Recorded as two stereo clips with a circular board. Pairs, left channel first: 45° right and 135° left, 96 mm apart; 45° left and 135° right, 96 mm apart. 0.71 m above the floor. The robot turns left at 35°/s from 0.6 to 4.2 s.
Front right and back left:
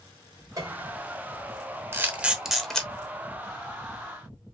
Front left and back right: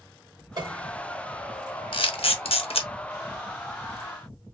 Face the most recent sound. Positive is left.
turn(degrees=-10)